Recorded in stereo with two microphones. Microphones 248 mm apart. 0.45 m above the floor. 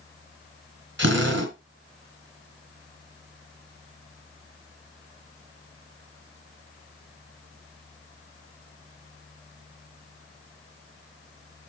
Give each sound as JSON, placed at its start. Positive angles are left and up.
{"t": 1.0, "sound": "a drill", "side_deg": -50, "distance_m": 3.5}